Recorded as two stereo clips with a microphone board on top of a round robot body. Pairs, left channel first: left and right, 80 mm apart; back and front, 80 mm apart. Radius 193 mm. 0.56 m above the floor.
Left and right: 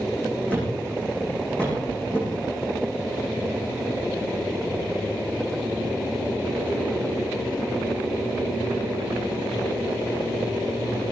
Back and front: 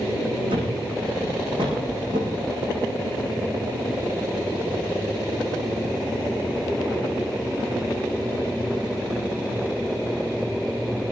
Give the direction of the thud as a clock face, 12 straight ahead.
12 o'clock.